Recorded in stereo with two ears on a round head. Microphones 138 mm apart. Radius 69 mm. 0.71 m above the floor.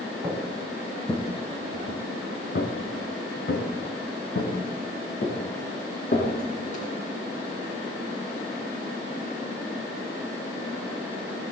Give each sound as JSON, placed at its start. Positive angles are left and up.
{"t": 0.2, "sound": "footsteps", "side_deg": -5, "distance_m": 3.0}